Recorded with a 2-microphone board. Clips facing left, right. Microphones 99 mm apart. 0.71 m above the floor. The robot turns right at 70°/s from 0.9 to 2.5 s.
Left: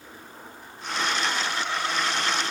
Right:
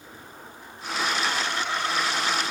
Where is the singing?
No singing in this recording.